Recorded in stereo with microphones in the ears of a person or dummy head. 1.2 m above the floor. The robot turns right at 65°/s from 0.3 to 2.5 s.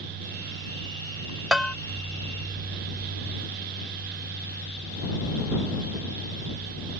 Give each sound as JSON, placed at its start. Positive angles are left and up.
{"t": 1.5, "sound": "a bell", "side_deg": -5}